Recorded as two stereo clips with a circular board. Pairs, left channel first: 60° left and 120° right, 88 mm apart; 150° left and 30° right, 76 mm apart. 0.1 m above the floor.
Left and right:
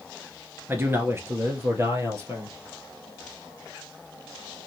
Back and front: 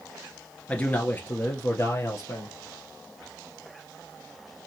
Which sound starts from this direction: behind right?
A man speaking, at 0.7 s.